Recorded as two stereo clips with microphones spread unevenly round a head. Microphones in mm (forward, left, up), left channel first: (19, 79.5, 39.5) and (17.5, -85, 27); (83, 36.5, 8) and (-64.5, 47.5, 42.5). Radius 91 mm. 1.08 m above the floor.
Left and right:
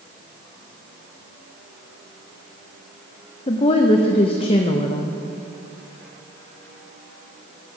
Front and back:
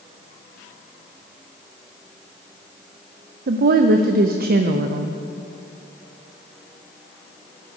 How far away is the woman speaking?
About 0.5 m.